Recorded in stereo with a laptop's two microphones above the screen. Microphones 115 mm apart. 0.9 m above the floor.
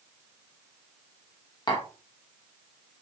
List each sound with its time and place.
1.7 s tapping: 40° left (ahead or behind), 1.1 m